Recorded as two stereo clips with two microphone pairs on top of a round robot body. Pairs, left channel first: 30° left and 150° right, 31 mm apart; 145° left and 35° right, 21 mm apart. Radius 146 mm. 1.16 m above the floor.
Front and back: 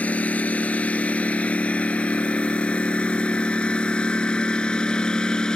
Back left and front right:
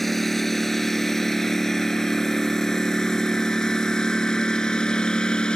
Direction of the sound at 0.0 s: 65° left.